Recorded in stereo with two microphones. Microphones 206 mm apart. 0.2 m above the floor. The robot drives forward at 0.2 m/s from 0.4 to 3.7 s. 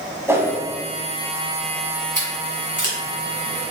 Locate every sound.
0.3 s a whoosh: 10° right (ahead or behind), 0.6 m
2.1 s scissors: 40° left (ahead or behind), 1.7 m